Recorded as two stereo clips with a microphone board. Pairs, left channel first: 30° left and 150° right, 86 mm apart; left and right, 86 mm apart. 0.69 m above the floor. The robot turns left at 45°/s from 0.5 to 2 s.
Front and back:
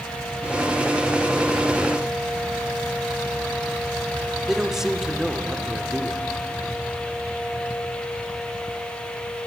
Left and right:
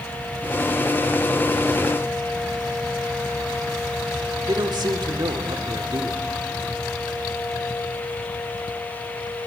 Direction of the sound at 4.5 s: 65° right.